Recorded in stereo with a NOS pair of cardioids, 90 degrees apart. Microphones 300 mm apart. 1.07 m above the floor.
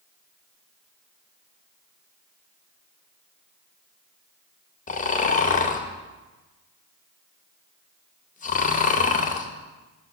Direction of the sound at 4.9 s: 25° left.